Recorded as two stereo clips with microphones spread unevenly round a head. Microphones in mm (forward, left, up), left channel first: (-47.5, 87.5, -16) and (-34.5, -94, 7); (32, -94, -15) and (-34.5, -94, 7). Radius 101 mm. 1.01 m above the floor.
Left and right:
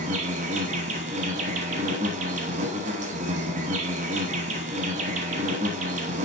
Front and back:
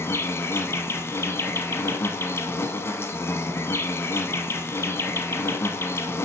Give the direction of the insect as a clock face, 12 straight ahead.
2 o'clock.